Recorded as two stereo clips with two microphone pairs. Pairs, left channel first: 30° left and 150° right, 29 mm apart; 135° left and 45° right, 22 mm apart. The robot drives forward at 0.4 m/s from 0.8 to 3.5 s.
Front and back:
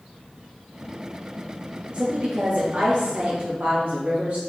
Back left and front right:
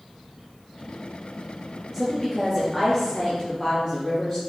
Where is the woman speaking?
135° right, 0.6 m; by 4.4 s 165° right, 1.1 m.